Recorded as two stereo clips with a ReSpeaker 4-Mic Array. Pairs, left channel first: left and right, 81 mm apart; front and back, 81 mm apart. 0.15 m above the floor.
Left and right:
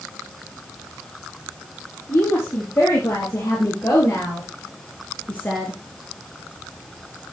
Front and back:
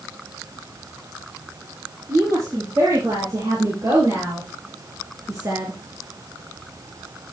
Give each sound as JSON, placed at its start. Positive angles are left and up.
{"t": 2.1, "sound": "a woman speaking", "azimuth_deg": 145, "distance_m": 4.5}